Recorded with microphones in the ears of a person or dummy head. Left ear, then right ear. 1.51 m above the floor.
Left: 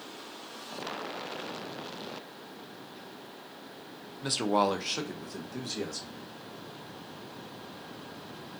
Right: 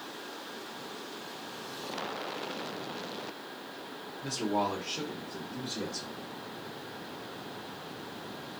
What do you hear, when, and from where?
4.2 s a man speaking: 40° left (ahead or behind), 0.6 m; by 6.2 s 60° left (ahead or behind), 1.2 m